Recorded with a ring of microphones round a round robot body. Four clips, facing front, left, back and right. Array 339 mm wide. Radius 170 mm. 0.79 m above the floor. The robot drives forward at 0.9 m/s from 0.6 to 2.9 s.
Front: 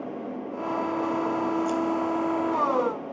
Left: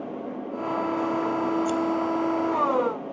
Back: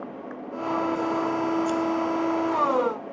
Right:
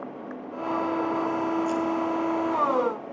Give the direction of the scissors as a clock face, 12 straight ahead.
8 o'clock.